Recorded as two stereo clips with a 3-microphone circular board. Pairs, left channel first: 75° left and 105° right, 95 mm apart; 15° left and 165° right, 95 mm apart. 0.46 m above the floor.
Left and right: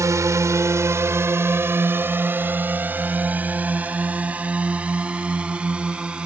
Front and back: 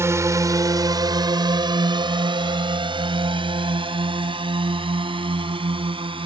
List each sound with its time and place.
0.0 s a drone: 130° right; by 6.3 s 175° left